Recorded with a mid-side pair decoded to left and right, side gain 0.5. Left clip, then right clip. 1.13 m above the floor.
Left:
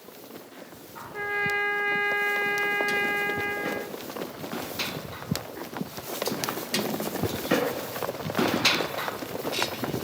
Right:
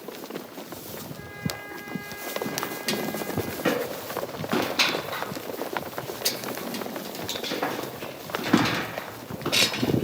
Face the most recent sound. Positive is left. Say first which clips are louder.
# left 13 dB
turn(degrees=70)